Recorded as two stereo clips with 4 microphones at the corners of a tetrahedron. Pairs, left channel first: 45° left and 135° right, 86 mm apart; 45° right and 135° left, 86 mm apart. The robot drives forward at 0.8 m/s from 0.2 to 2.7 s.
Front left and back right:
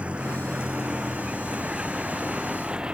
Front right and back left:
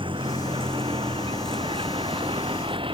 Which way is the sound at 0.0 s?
150° left.